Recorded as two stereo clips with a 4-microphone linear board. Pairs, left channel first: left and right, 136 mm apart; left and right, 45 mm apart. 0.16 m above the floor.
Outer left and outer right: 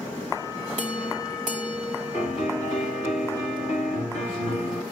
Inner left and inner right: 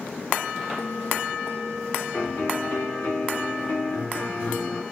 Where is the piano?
55° left (ahead or behind), 2 m.